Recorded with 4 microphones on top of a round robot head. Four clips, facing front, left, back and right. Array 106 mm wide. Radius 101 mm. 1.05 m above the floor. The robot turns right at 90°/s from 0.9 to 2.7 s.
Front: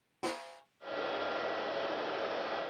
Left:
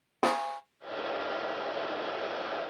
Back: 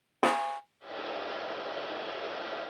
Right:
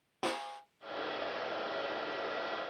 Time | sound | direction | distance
0.2 | a snare drum | 145° left | 0.5 m